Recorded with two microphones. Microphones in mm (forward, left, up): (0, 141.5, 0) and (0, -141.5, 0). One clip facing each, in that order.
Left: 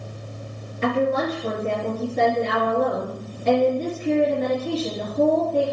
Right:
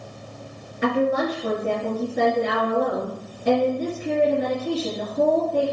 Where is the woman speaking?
10° right (ahead or behind), 3 m.